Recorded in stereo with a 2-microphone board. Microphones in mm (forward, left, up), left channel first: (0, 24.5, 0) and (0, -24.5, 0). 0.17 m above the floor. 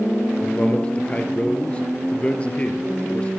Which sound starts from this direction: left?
A man speaking, at 0.4 s.